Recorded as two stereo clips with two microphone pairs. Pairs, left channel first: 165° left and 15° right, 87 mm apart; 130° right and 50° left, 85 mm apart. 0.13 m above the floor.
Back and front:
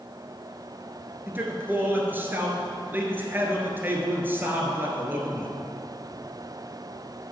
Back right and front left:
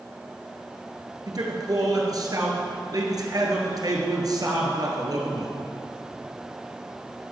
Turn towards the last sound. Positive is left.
turn(degrees=45)